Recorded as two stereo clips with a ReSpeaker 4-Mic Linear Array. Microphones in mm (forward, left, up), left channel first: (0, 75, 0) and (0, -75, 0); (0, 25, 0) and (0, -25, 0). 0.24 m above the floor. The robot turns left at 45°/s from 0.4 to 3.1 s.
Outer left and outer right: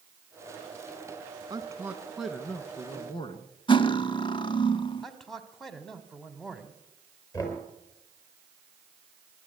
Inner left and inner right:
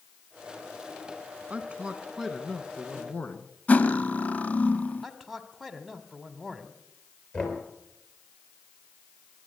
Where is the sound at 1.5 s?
145° right, 2 m; by 3.5 s 140° left, 2 m.